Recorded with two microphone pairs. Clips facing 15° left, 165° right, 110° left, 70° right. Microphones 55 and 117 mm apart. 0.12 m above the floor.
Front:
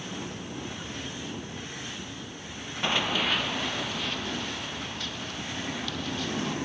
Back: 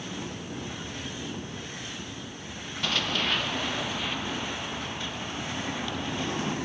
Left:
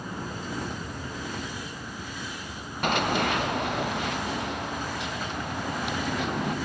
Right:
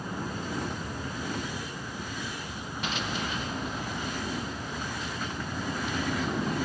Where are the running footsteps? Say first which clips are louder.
Front 2 dB, left 9 dB; 80° left, 1.1 m; by 6.5 s 125° left, 4.5 m.